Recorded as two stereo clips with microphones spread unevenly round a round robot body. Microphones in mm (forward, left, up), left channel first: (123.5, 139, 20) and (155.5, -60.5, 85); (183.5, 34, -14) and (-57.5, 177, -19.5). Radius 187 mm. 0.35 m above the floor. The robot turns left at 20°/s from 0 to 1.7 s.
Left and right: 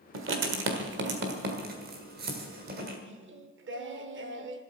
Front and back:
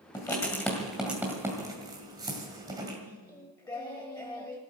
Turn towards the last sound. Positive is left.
turn(degrees=-105)